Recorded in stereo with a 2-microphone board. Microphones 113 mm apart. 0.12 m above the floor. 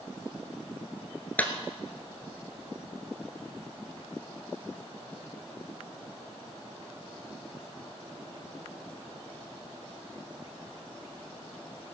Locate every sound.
1.4 s a clap: 15° left (ahead or behind), 1.6 m